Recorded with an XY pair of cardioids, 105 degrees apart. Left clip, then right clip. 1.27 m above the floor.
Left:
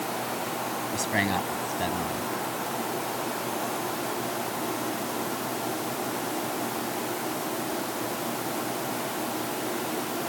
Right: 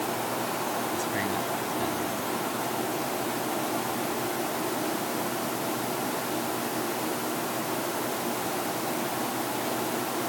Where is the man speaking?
55° left.